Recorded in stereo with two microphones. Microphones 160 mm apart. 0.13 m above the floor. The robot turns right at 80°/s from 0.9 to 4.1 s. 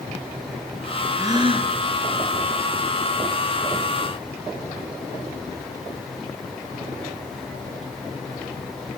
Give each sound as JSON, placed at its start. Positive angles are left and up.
{"t": 1.2, "sound": "a gasp", "azimuth_deg": -155, "distance_m": 2.0}